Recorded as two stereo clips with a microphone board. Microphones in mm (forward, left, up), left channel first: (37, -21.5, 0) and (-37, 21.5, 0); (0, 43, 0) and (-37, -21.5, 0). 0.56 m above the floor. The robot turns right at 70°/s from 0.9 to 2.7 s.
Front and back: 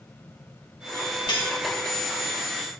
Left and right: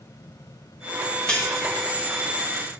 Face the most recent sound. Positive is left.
turn(degrees=80)